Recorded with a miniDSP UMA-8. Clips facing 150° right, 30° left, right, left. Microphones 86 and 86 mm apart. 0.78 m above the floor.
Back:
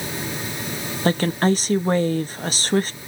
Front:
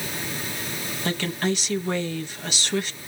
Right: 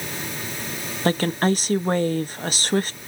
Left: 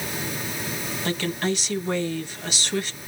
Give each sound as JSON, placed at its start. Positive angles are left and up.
{"t": 1.1, "sound": "a woman speaking", "azimuth_deg": -120, "distance_m": 0.7}